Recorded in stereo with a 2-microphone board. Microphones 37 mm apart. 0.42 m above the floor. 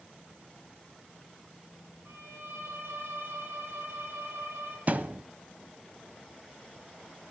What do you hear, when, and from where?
2.0 s a violin: 85° right, 6.5 m
4.9 s a thud: 45° right (ahead or behind), 0.9 m